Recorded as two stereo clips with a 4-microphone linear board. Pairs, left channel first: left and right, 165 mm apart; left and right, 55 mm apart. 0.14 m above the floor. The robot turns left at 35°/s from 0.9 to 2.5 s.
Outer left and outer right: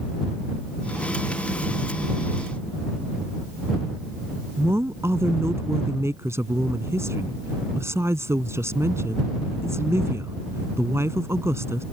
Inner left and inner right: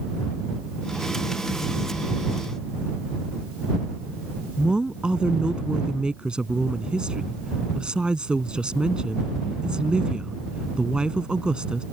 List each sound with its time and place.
4.6 s a woman speaking: 15° right (ahead or behind)